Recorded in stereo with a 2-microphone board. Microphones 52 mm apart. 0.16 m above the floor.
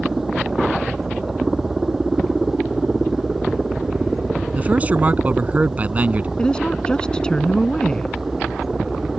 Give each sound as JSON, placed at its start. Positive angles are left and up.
{"t": 0.0, "sound": "a helicopter", "side_deg": -5}
{"t": 4.5, "sound": "a man speaking", "side_deg": -30}
{"t": 6.4, "sound": "a woman speaking", "side_deg": 20}